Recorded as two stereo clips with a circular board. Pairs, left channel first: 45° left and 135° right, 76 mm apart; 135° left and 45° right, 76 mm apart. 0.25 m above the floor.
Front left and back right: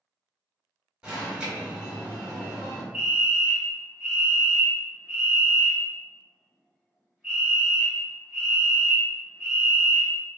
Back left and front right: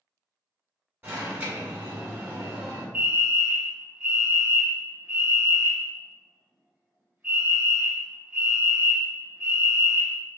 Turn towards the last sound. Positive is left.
turn(degrees=-60)